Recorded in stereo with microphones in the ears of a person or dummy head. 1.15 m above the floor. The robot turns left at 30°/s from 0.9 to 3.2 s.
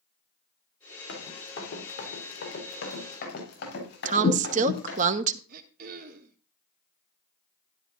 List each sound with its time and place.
1.1 s running footsteps: 75° left (ahead or behind), 5.5 m; by 5.0 s 60° left (ahead or behind), 6.5 m
4.0 s a woman speaking: 45° right (ahead or behind), 1.1 m
5.5 s throat clearing: 55° right (ahead or behind), 1.5 m